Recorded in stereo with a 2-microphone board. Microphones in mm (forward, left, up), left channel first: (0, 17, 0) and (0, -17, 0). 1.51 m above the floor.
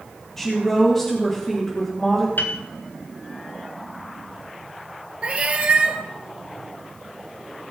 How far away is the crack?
I don't hear a crack.